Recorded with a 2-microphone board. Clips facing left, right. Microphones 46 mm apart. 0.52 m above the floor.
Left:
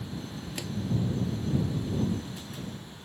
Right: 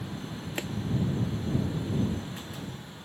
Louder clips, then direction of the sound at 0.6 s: Right 5 dB; 30° right (ahead or behind).